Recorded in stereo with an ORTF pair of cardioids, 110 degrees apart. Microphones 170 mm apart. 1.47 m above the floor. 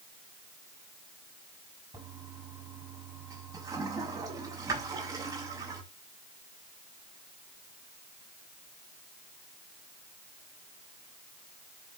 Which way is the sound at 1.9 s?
20° right.